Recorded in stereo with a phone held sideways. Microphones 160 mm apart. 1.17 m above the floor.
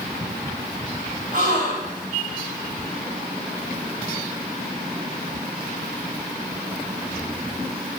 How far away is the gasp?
About 6.5 m.